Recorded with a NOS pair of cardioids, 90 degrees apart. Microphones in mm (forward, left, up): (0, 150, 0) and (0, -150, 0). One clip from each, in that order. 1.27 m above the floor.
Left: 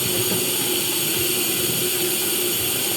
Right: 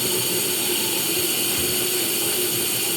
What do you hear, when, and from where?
0.0 s running water: 10° right, 7 m